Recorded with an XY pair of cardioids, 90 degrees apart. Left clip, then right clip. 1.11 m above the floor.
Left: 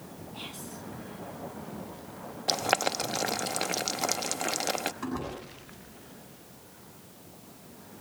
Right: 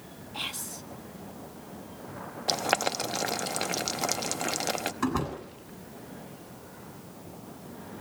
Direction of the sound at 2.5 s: Straight ahead.